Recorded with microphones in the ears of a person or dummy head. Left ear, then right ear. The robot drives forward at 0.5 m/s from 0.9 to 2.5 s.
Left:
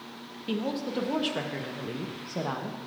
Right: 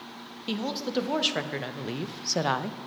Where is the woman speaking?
30° right (ahead or behind), 1.0 m; by 2.8 s 75° right (ahead or behind), 0.5 m.